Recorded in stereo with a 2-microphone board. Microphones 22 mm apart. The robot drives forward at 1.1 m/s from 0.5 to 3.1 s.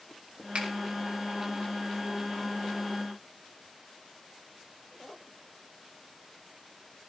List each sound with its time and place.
0.6 s a finger snap: 75° right (ahead or behind), 3.5 m; by 0.7 s 80° right, 3.5 m